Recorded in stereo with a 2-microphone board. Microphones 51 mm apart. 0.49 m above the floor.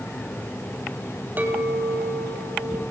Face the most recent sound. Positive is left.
turn(degrees=-35)  # may be behind; listen again after turning